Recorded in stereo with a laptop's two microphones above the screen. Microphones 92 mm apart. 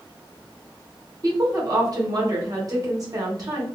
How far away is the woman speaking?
About 1.1 m.